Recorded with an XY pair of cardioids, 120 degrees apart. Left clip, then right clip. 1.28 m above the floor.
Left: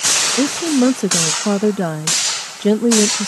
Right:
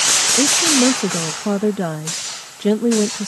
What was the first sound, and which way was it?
A woman speaking, 20° left.